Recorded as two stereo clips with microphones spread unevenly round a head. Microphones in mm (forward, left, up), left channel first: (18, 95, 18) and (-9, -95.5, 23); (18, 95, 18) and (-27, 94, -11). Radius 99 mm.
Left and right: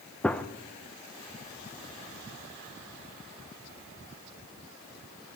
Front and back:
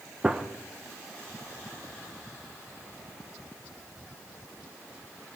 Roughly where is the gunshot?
Behind.